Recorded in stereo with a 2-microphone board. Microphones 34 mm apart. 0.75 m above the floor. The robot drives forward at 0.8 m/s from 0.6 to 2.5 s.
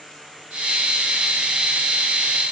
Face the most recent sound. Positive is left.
No sound to turn to.